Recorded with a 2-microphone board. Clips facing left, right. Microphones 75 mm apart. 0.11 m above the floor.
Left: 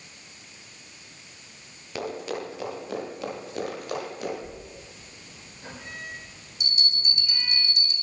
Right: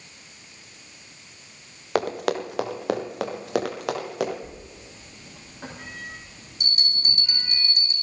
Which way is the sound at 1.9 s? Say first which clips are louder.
Right 7 dB; 65° right (ahead or behind).